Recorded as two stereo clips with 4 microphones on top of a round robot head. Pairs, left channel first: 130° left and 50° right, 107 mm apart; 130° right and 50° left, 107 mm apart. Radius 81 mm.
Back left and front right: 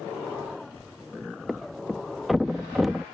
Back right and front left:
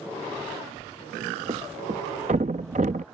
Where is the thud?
40° left.